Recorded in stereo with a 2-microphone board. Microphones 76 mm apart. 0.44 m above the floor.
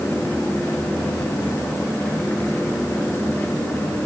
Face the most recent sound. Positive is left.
No sound to turn to.